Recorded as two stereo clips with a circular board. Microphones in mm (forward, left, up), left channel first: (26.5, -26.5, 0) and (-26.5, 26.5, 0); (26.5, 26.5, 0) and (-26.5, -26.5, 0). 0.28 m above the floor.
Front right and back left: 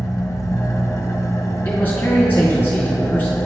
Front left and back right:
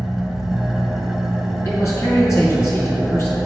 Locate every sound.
0.0 s an engine running: 55° right, 0.8 m
1.6 s a man speaking: 15° left, 2.5 m